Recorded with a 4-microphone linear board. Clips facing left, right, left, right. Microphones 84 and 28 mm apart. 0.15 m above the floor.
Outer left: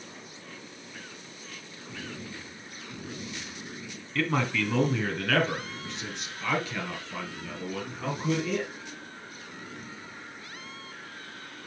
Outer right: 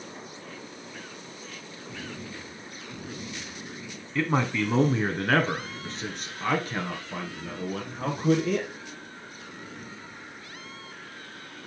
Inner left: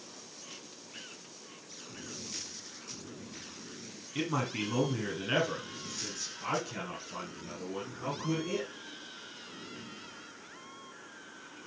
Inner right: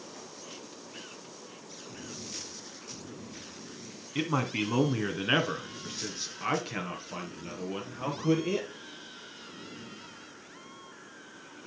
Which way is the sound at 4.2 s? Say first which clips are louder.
Outer right 2 dB, inner right 3 dB; 15° right (ahead or behind).